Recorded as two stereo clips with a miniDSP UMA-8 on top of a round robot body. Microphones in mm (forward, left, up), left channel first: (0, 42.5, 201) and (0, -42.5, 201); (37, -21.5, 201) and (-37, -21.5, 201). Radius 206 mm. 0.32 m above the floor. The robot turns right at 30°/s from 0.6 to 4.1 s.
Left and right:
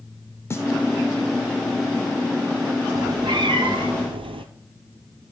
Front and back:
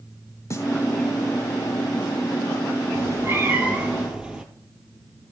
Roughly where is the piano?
I don't hear a piano.